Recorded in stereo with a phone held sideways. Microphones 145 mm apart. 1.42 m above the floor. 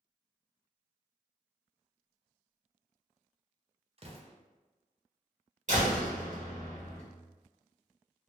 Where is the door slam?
55° right (ahead or behind), 1.3 m.